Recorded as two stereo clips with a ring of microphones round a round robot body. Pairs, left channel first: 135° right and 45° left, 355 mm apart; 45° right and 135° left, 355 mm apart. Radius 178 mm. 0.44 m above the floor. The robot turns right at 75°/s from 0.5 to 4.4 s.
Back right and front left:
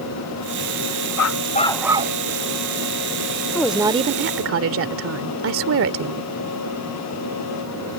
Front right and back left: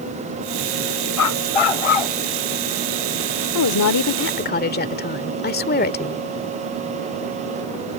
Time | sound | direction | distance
1.2 | a dog barking | 95° right | ?
3.5 | a woman speaking | 55° right | ?